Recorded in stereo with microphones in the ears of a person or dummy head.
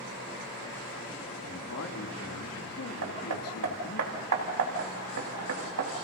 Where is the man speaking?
80° left, 3.5 m.